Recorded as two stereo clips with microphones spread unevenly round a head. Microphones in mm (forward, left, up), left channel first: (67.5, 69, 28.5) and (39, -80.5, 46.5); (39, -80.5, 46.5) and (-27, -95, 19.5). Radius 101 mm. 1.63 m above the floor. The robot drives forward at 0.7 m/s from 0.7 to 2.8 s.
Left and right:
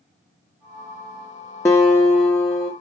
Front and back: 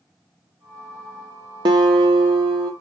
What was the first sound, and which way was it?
A guitar, 155° left.